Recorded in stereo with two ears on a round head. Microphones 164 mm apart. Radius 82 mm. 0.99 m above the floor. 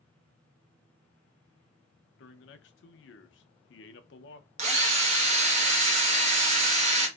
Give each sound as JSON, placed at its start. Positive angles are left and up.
{"t": 2.2, "sound": "a man speaking", "side_deg": 70, "distance_m": 0.6}
{"t": 4.6, "sound": "a drill", "side_deg": -35, "distance_m": 1.0}